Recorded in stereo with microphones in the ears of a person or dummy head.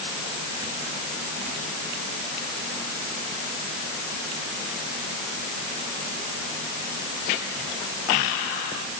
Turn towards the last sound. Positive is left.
No sound to turn to.